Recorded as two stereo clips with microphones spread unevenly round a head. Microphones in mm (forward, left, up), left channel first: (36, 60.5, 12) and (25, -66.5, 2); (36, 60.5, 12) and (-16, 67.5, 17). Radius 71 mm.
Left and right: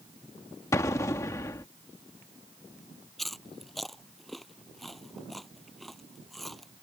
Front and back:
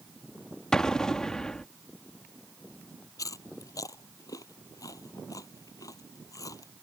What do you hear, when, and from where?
0.7 s an explosion: 70° left
3.2 s chewing: 5° right